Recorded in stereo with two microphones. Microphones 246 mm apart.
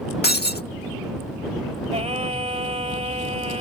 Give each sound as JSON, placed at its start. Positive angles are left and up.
{"t": 0.2, "sound": "breaking glass", "side_deg": 40}
{"t": 1.9, "sound": "singing", "side_deg": -25}